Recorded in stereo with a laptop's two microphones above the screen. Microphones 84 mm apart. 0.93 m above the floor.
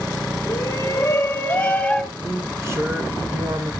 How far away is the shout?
About 1.0 m.